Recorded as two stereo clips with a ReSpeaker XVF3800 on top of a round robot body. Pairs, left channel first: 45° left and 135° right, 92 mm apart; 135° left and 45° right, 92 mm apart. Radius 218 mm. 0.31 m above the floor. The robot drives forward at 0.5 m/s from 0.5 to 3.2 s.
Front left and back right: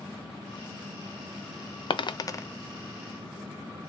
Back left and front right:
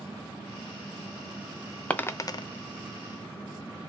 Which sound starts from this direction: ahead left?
A dropped coin, at 1.9 s.